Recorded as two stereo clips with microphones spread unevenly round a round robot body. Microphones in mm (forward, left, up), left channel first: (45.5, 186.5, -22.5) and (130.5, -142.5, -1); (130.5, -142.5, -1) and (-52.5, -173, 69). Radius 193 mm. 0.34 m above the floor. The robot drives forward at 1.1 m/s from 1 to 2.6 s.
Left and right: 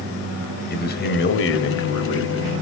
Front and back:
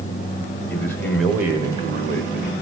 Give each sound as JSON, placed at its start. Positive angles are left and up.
{"t": 0.7, "sound": "a man speaking", "azimuth_deg": 60, "distance_m": 1.5}